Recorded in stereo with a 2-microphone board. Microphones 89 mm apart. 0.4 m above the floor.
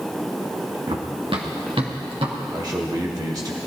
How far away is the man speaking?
About 1.2 m.